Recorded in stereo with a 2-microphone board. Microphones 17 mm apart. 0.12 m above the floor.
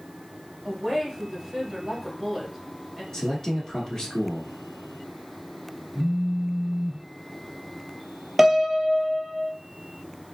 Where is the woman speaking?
30° right (ahead or behind), 2 m.